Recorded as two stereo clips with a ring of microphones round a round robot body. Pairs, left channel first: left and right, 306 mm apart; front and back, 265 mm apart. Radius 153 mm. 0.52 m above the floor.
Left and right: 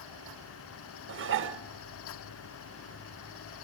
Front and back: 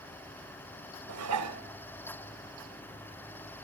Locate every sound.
1.1 s dishes clattering: 140° right, 0.9 m